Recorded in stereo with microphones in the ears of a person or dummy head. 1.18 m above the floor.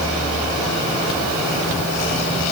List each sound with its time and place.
Only background noise.